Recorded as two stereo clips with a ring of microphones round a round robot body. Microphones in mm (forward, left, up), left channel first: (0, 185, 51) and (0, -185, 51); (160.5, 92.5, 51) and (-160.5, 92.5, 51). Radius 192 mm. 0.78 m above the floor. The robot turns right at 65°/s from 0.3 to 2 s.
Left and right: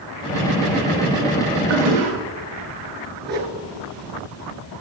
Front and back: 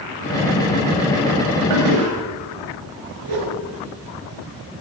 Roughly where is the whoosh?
Behind right.